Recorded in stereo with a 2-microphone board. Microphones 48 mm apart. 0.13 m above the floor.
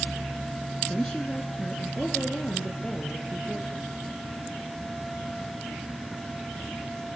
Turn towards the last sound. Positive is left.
turn(degrees=20)  # may be behind; listen again after turning